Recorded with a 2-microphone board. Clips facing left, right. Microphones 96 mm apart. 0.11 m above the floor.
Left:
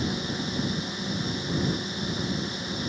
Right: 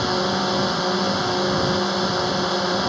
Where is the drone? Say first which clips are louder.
Right 9 dB; 70° right (ahead or behind).